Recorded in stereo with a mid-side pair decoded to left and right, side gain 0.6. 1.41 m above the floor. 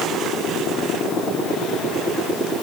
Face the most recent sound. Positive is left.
No sound to turn to.